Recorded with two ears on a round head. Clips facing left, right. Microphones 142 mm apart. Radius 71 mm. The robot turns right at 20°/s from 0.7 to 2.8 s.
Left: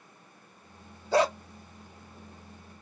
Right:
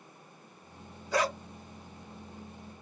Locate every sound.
1.1 s a dog barking: 30° left (ahead or behind), 0.6 m; by 1.4 s 25° left (ahead or behind), 0.6 m